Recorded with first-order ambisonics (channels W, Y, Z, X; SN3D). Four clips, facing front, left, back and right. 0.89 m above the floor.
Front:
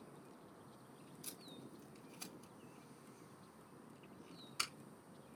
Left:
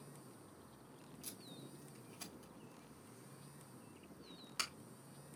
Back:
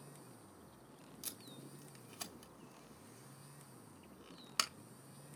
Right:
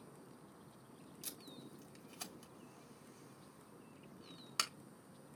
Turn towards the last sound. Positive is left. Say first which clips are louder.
# right 2 dB, back 2 dB
turn(degrees=-160)